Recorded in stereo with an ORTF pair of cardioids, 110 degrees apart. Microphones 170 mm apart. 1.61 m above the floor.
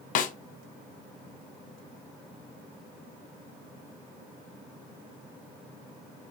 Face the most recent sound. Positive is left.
turn(degrees=50)